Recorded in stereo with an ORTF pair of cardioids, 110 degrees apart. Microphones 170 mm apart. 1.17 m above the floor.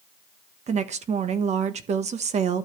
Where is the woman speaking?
45° right, 1.0 m.